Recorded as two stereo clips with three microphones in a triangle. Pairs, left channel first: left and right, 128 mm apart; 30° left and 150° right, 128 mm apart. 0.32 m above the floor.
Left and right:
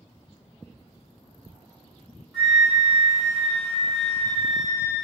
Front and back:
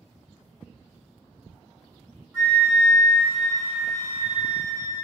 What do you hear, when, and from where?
2.3 s a flute: 175° right, 1.5 m